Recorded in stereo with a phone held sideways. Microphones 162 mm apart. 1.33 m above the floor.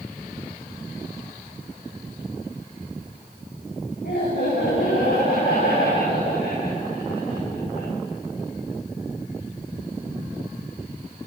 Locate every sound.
4.0 s laughter: 85° left, 9.5 m; by 7.9 s 70° left (ahead or behind), 10 m